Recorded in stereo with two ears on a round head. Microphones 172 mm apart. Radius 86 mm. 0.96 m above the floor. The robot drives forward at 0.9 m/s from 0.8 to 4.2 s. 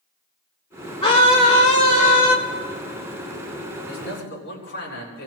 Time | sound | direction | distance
1.0 | a scream | 30° left (ahead or behind) | 3 m
3.9 | a man speaking | 65° left (ahead or behind) | 7.5 m